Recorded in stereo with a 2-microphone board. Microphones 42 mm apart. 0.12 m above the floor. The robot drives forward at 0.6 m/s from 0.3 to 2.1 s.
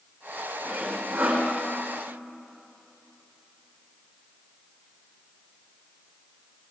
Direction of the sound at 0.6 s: 55° right (ahead or behind).